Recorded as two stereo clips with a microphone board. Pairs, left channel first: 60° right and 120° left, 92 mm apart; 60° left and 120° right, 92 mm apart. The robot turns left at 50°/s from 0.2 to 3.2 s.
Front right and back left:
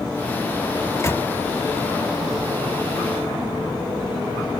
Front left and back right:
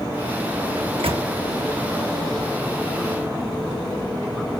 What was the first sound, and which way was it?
A microwave, 105° right.